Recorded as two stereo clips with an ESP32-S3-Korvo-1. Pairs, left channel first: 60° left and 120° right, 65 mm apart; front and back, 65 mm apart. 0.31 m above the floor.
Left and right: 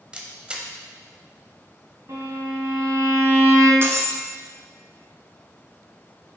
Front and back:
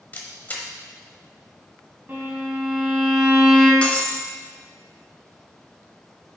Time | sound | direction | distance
0.1 | a camera shutter | 50° right | 0.9 m
2.1 | a violin | 130° right | 1.8 m
3.8 | breaking glass | 70° right | 0.8 m